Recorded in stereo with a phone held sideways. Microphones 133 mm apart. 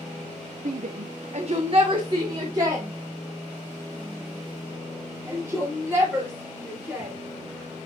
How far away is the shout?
About 0.7 m.